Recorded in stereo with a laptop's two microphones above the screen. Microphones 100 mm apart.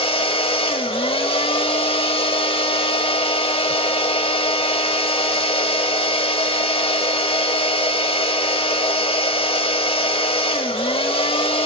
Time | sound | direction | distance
0.0 | a machine running | 70° left (ahead or behind) | 0.9 m